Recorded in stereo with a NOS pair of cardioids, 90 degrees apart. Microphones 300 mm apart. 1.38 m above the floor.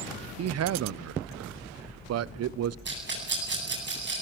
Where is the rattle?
35° right, 10 m.